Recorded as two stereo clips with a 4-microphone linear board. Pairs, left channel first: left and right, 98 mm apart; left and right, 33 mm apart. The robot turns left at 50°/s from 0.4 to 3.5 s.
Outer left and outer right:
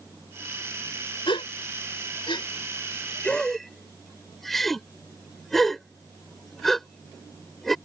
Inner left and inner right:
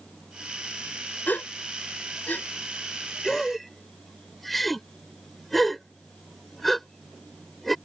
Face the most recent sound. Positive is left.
turn(degrees=5)  # may be behind; listen again after turning